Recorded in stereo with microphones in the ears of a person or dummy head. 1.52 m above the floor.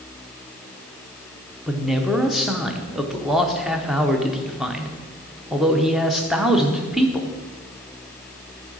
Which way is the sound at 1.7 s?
Centre (ahead or behind).